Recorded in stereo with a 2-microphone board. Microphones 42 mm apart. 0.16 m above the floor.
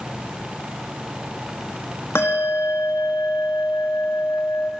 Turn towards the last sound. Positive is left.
turn(degrees=70)  # may be behind; listen again after turning